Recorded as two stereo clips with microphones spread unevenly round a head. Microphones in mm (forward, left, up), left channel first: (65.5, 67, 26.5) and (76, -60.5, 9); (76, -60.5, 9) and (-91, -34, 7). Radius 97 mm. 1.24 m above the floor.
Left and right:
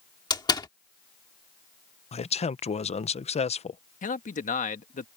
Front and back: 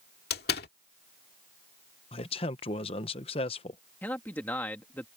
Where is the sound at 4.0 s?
70° left.